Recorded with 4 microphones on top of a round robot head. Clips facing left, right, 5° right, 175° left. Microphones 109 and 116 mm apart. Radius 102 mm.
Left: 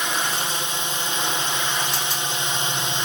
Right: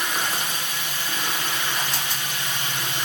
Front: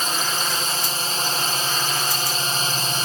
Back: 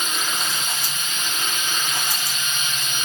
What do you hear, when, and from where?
0.0 s a drone: 30° left